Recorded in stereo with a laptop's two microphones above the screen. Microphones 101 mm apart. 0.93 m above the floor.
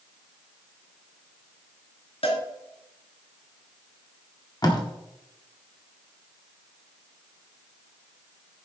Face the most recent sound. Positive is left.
turn(degrees=40)  # may be behind; listen again after turning